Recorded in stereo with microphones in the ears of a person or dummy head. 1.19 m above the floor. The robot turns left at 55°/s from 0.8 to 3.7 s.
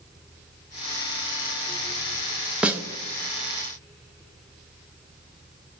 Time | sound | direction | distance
2.6 | a snare drum | 5° right (ahead or behind) | 0.5 m